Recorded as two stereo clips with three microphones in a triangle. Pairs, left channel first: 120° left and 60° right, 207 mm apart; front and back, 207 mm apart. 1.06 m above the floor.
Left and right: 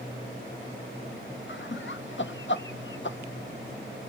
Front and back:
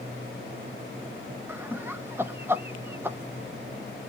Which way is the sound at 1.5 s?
100° left.